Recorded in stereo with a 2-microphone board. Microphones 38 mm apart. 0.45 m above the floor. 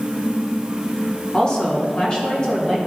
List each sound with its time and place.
1.3 s a woman speaking: 20° left (ahead or behind), 1.3 m; by 2.8 s 25° left (ahead or behind), 3 m